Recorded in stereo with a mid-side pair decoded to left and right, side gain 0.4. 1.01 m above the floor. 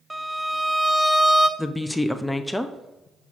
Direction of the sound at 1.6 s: 10° left.